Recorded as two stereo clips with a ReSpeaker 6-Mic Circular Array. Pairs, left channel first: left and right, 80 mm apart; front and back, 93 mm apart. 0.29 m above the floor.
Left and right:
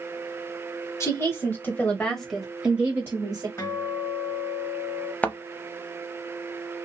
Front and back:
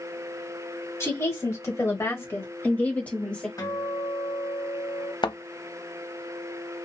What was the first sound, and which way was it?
A woman speaking, 50° left.